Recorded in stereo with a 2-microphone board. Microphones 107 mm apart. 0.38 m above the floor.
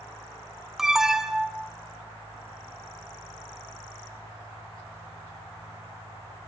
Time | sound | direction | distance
0.8 | an alarm | 5° right (ahead or behind) | 0.7 m